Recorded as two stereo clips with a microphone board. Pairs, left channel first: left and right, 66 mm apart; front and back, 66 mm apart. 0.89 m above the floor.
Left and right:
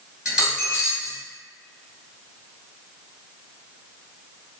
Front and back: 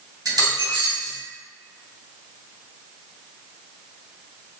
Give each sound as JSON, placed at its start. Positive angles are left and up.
{"t": 0.2, "sound": "a dropped coin", "azimuth_deg": -165, "distance_m": 1.5}